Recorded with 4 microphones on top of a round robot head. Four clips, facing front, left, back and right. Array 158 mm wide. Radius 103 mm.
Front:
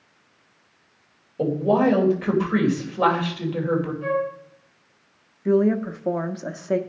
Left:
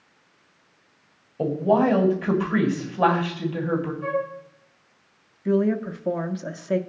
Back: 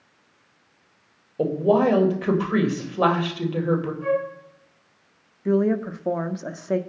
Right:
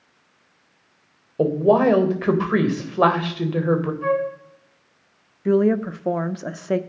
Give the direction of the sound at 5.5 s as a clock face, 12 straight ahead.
3 o'clock.